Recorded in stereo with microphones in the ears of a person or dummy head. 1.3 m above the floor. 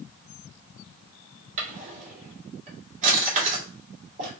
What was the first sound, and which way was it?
A drawer, 40° right (ahead or behind).